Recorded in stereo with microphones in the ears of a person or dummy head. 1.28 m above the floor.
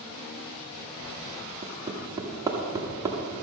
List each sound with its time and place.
1.6 s hammering: 10° right (ahead or behind), 1.1 m